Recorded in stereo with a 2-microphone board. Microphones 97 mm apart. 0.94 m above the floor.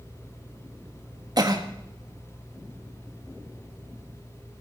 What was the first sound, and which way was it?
A cough, 45° right (ahead or behind).